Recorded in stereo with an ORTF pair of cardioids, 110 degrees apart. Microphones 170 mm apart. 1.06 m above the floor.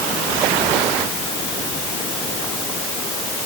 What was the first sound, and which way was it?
Only background noise.